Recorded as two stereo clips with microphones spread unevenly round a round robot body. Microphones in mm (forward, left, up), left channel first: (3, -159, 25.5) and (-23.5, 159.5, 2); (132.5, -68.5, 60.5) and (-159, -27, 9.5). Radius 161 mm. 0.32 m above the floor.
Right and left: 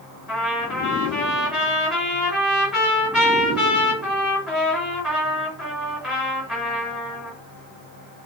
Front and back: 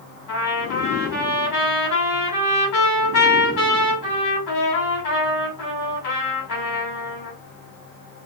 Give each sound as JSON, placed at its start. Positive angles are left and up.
{"t": 0.3, "sound": "a trumpet", "azimuth_deg": 10, "distance_m": 3.0}